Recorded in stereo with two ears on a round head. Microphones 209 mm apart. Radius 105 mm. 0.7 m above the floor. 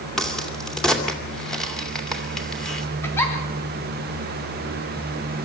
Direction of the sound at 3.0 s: 10° left (ahead or behind).